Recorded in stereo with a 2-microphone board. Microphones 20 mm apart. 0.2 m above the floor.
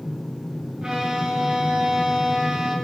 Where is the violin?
50° right (ahead or behind), 2.5 m.